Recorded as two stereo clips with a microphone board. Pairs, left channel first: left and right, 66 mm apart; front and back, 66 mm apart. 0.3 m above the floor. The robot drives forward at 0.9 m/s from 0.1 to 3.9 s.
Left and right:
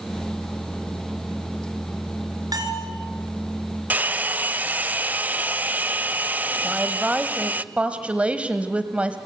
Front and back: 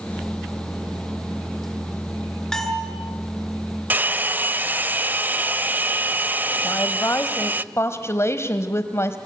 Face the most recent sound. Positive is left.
turn(degrees=-25)